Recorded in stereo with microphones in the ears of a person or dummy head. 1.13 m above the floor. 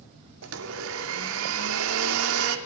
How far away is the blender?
About 1.9 m.